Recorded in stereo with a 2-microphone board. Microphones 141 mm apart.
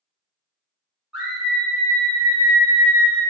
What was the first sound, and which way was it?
A scream, 5° right (ahead or behind).